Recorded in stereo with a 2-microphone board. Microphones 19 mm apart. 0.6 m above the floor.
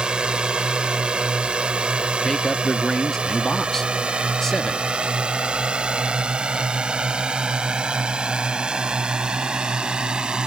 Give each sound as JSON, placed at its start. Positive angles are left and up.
{"t": 0.0, "sound": "a drone", "side_deg": -55}
{"t": 2.2, "sound": "a man speaking", "side_deg": 20}